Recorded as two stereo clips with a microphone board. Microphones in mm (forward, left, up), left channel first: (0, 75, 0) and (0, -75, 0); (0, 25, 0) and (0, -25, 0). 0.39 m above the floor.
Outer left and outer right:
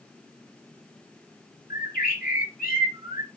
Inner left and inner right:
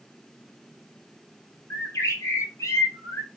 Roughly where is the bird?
Left.